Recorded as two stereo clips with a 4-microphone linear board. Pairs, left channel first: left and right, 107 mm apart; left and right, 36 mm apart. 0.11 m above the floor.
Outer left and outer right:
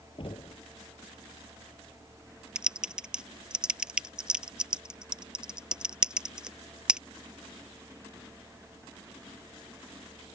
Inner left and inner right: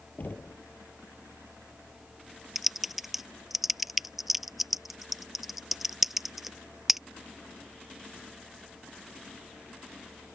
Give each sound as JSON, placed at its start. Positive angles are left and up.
{"t": 0.2, "sound": "knocking", "side_deg": 55}
{"t": 2.5, "sound": "typing on a keyboard", "side_deg": -5}